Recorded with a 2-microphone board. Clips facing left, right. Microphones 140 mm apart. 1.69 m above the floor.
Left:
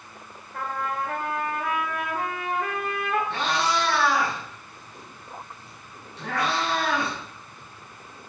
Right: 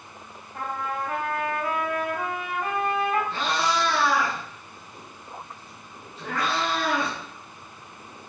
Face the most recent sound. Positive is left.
turn(degrees=75)  # may be behind; listen again after turning